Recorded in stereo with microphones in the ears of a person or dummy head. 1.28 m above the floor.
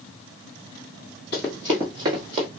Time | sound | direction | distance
1.3 | running footsteps | 5° left (ahead or behind) | 1.3 m